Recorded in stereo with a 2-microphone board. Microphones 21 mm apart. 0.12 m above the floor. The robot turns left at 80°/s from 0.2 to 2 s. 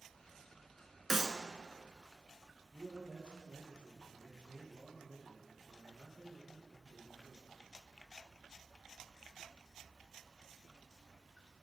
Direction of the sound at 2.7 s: 55° left (ahead or behind).